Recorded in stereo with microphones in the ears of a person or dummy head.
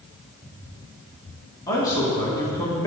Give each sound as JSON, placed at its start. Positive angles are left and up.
{"t": 1.7, "sound": "a man speaking", "side_deg": 15, "distance_m": 1.9}